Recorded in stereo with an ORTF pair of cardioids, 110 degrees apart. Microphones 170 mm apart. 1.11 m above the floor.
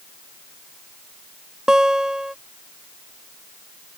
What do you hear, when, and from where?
1.7 s a guitar: 5° right